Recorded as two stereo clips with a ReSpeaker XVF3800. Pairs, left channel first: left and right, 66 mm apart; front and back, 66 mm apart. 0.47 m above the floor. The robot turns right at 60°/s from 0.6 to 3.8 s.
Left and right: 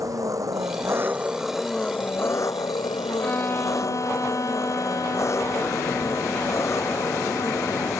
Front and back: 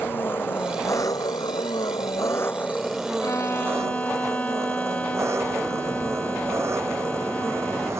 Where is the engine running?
60° right; by 8.0 s 135° left.